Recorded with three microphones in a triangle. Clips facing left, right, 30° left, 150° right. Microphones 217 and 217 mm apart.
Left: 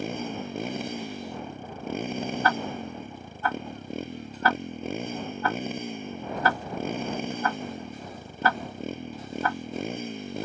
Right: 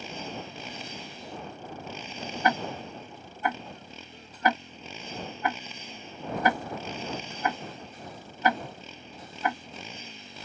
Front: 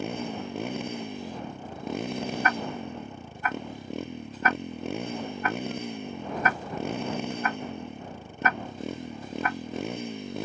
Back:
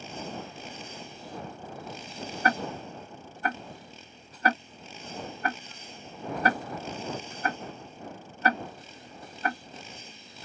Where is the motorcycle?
55° left.